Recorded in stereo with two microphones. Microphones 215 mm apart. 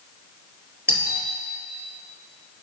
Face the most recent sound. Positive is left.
turn(degrees=-10)  # may be behind; listen again after turning